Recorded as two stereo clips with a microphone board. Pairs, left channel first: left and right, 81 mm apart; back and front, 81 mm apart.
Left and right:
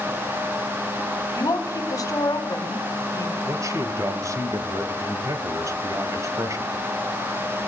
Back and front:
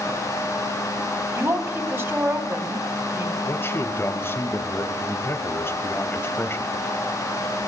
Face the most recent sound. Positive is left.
turn(degrees=-125)